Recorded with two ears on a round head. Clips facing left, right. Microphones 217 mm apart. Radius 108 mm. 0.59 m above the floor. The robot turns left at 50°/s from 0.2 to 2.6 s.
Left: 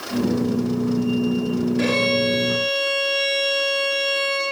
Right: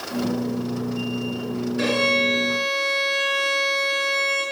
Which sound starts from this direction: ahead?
A violin, at 1.8 s.